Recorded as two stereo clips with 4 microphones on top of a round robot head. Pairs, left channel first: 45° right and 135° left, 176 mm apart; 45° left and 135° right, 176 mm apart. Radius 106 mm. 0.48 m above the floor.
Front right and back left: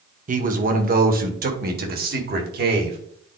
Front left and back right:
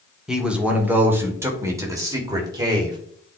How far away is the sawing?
I don't hear sawing.